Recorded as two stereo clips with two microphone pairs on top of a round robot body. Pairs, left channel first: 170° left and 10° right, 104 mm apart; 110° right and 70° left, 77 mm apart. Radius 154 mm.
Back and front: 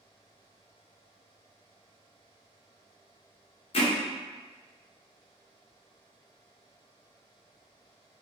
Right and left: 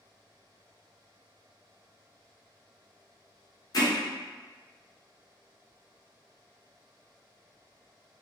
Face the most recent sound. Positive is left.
turn(degrees=-155)